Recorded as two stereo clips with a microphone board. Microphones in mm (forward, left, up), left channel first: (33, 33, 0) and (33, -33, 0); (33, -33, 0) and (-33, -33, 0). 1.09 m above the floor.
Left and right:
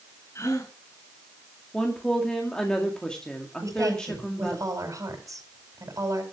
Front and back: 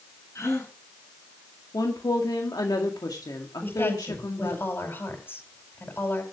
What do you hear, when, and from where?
0.3 s a gasp: 45° left, 8.5 m
1.7 s a woman speaking: 10° left, 2 m
3.6 s a woman speaking: 60° right, 5 m